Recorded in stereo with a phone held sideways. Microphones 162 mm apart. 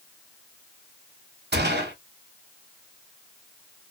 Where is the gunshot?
75° right (ahead or behind), 1.0 m.